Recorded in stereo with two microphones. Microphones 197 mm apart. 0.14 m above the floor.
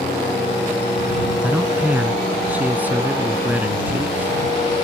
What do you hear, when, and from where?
1.4 s a man speaking: 10° right (ahead or behind)